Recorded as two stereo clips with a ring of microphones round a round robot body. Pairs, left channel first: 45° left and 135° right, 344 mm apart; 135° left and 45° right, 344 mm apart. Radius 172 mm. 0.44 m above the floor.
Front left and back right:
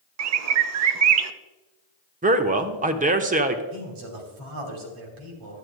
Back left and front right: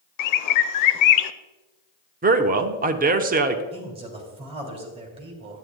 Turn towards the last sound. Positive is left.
turn(degrees=-120)